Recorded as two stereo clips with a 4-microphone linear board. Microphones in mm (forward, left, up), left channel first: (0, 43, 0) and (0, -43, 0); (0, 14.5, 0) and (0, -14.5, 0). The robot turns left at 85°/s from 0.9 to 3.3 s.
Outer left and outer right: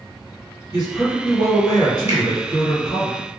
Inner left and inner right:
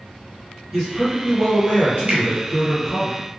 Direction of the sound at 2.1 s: 35° right (ahead or behind).